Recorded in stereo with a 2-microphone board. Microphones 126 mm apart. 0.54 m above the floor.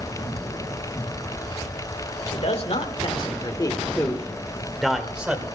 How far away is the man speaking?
About 2 m.